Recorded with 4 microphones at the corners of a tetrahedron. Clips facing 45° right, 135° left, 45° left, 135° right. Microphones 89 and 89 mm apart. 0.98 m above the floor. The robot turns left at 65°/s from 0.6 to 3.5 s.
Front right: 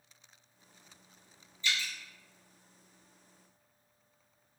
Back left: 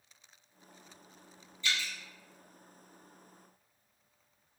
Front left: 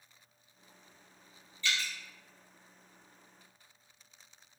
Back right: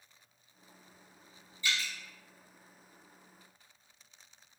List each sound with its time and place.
1.6 s dripping: 155° left, 1.9 m; by 1.9 s 135° left, 1.9 m